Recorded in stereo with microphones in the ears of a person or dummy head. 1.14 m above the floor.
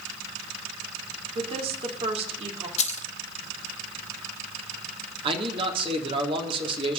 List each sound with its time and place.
1.4 s a woman speaking: 35° right (ahead or behind), 3 m
2.8 s keys jangling: 40° left (ahead or behind), 0.8 m
5.2 s a man speaking: 35° right (ahead or behind), 2.5 m